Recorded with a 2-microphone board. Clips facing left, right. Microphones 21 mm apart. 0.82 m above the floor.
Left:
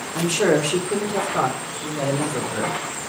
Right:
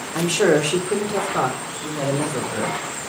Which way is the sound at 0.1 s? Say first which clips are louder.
Right 2 dB; 35° right (ahead or behind).